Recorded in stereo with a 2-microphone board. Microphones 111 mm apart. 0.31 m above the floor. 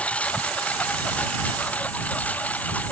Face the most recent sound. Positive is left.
turn(degrees=15)  # may be behind; listen again after turning